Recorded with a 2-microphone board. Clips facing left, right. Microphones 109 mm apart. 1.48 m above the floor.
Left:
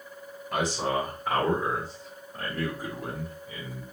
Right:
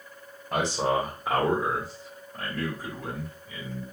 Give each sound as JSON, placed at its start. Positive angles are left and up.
{"t": 0.5, "sound": "a man speaking", "side_deg": -35, "distance_m": 1.2}